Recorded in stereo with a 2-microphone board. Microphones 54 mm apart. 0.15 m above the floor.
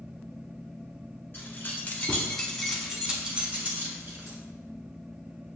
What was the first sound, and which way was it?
Keys jangling, 40° left (ahead or behind).